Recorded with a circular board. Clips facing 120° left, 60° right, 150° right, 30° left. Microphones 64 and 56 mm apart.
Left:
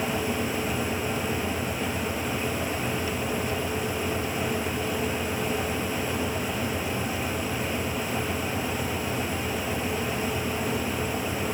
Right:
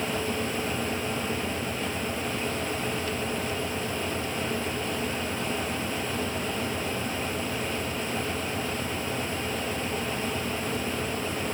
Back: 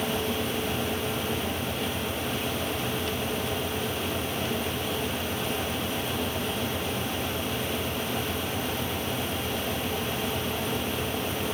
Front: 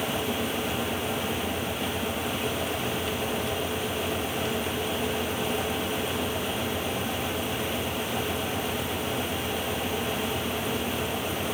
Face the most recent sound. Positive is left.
No sound to turn to.